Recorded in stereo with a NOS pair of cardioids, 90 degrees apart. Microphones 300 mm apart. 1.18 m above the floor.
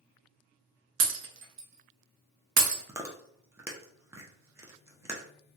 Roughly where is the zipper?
I don't hear a zipper.